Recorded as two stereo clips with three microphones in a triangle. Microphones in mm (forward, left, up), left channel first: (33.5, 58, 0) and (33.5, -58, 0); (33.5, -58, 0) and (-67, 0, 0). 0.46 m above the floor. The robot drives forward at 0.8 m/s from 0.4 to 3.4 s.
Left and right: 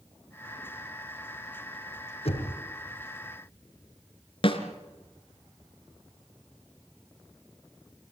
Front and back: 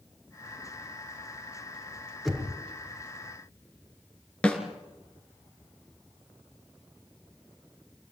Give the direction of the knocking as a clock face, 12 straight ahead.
10 o'clock.